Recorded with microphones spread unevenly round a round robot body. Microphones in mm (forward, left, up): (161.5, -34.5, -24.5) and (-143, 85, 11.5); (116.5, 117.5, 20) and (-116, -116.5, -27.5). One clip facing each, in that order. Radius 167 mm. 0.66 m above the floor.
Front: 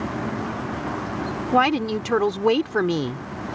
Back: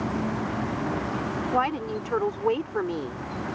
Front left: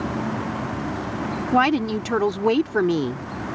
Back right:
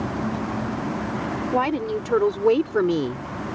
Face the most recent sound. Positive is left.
turn(degrees=-45)